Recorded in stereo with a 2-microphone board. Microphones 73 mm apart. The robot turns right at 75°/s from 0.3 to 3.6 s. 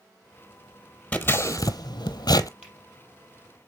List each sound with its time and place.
1.1 s scissors: 20° left (ahead or behind), 0.6 m; by 2.5 s 55° left (ahead or behind), 0.6 m
2.6 s a finger snap: 15° right (ahead or behind), 3.5 m; by 2.8 s 20° right (ahead or behind), 3.5 m